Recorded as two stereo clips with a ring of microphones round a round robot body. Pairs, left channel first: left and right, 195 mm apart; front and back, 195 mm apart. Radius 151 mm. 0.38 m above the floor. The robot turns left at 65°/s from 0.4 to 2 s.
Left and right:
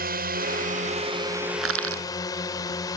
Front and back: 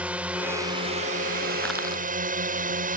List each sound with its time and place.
0.0 s a drone: 100° right; by 3.0 s 160° left
1.6 s crushing: 85° right; by 2.0 s 110° right